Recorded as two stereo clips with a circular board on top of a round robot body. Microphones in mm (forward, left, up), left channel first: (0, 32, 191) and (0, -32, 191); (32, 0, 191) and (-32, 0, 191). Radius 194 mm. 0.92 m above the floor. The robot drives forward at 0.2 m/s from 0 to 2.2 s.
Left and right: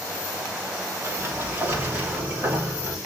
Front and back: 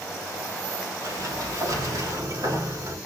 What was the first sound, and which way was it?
A sliding door, 150° right.